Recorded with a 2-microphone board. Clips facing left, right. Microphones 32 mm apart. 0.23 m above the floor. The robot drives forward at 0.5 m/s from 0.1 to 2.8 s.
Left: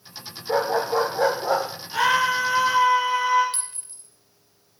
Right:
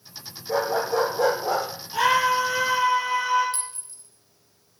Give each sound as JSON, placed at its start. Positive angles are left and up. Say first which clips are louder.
{"t": 0.5, "sound": "a dog barking", "louder": "left 2 dB", "side_deg": 30, "distance_m": 5.0}
{"t": 1.9, "sound": "a scream", "louder": "even", "side_deg": 45, "distance_m": 2.5}
{"t": 3.5, "sound": "a clink", "louder": "right 2 dB", "side_deg": 45, "distance_m": 1.0}